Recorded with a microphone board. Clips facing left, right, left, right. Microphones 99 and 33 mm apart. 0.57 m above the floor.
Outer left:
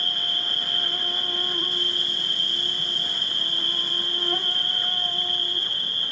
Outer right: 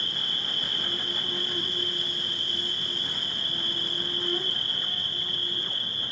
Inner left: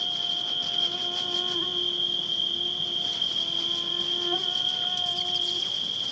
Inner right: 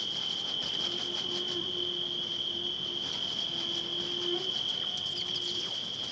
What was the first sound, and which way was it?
An insect, 70° left (ahead or behind).